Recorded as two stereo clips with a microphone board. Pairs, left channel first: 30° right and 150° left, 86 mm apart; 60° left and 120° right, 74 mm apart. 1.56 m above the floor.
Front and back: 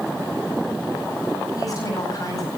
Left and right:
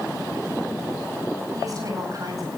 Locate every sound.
1.6 s a woman speaking: 80° right, 9 m